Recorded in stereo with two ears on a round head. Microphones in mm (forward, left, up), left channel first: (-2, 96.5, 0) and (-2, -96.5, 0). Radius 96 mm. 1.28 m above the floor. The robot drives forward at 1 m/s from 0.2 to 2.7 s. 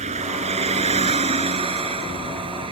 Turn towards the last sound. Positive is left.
turn(degrees=-25)  # may be behind; listen again after turning